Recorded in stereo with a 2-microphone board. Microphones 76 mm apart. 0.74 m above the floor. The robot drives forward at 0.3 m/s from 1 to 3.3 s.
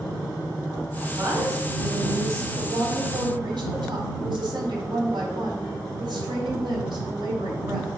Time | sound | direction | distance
1.1 | a woman speaking | 40° right (ahead or behind) | 4 m
2.6 | a woman speaking | 80° right | 3 m